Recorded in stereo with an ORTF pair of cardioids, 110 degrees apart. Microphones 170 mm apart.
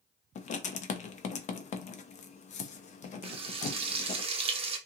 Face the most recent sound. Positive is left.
turn(degrees=-35)